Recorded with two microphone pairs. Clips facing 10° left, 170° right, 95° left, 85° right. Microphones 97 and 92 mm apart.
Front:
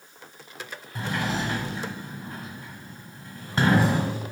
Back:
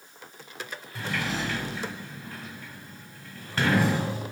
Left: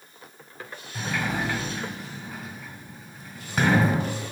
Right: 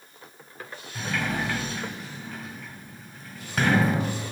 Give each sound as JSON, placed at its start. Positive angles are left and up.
{"t": 0.9, "sound": "a sliding door", "azimuth_deg": 15, "distance_m": 1.4}